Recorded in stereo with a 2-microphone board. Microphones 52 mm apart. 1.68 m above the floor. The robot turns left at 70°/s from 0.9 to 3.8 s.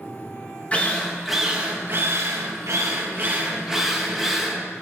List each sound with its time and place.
0.7 s a drill: 30° left, 2 m; by 4.6 s 175° right, 2 m